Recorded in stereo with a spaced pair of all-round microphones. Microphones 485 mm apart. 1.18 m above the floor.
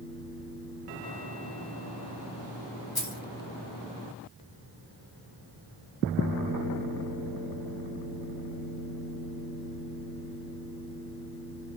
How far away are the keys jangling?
About 1.1 m.